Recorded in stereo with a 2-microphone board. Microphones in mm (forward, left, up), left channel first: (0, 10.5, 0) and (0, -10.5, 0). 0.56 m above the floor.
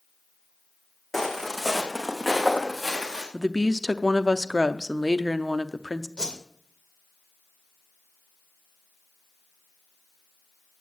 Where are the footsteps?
15° left (ahead or behind), 2 m; by 3.2 s 20° left (ahead or behind), 3.5 m.